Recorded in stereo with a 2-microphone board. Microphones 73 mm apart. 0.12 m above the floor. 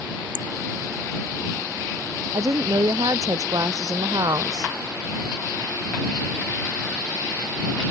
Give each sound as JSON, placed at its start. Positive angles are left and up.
{"t": 2.3, "sound": "a woman speaking", "side_deg": -60}